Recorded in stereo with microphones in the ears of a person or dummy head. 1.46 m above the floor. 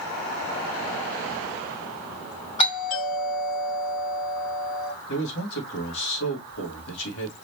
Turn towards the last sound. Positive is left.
turn(degrees=75)  # may be behind; listen again after turning